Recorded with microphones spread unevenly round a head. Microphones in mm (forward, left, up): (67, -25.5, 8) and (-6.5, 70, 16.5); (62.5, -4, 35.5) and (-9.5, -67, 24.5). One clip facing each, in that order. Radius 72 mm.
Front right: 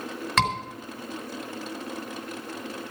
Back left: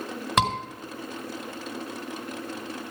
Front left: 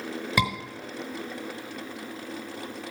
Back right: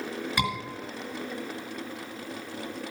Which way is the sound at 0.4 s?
55° left.